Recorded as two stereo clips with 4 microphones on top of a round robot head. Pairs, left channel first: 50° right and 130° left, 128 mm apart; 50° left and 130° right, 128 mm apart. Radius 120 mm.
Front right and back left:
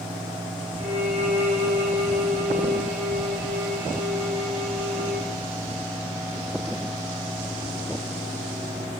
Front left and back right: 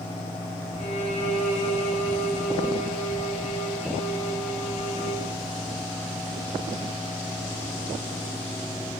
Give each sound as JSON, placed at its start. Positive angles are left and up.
{"t": 0.8, "sound": "a violin", "azimuth_deg": 85, "distance_m": 5.5}